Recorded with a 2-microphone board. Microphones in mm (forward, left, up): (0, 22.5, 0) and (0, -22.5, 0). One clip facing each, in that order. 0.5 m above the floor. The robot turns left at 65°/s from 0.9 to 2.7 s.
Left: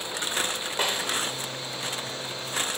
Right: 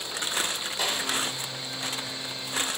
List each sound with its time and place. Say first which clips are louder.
0.8 s a snare drum: left 2 dB; 40° left (ahead or behind), 1.4 m; by 1.0 s 35° left (ahead or behind), 1.4 m